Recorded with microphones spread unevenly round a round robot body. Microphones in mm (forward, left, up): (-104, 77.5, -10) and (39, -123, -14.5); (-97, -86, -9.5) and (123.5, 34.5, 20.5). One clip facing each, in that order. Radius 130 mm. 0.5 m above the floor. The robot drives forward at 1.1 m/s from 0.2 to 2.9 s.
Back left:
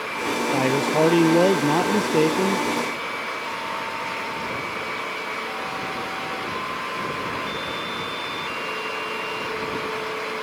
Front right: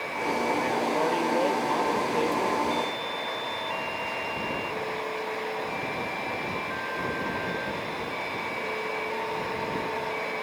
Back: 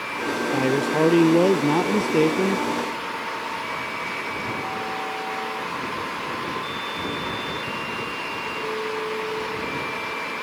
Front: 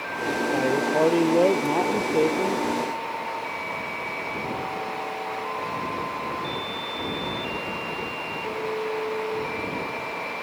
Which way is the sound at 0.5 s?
145° left.